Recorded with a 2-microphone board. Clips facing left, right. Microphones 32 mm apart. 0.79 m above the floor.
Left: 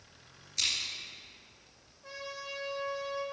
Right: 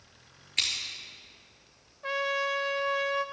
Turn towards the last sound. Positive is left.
turn(degrees=-65)  # may be behind; listen again after turning